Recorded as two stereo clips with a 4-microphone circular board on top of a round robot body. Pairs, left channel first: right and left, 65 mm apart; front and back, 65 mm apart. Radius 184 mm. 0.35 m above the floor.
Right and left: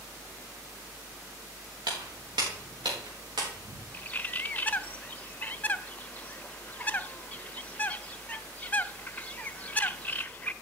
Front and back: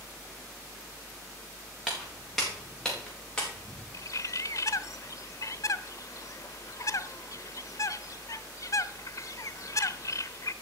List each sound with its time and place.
1.9 s footsteps: 90° left, 3.5 m; by 3.8 s 70° left, 4.5 m
3.9 s a bird: 25° right, 0.7 m